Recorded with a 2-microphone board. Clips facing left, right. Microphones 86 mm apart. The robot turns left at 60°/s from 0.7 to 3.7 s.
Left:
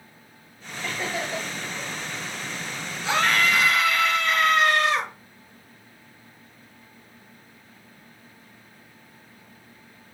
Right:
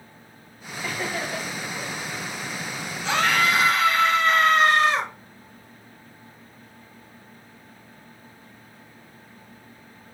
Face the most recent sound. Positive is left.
turn(degrees=-30)